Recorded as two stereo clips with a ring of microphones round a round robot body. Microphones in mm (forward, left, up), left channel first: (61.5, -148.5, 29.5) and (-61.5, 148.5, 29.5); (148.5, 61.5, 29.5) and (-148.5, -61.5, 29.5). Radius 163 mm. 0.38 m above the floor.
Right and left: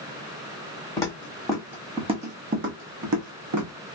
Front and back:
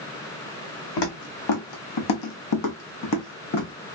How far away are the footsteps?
About 1.5 m.